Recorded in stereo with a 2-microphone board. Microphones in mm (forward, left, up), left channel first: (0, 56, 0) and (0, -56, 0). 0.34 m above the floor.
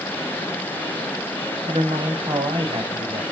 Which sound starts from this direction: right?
A man speaking, at 1.7 s.